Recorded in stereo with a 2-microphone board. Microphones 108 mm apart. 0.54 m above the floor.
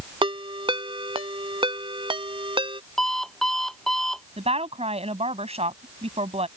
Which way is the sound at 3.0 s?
5° left (ahead or behind).